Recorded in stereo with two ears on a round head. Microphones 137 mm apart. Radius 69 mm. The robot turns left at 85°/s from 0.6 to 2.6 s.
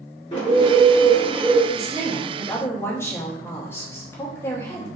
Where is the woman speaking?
125° right, 0.9 m; by 4.9 s 160° left, 0.9 m.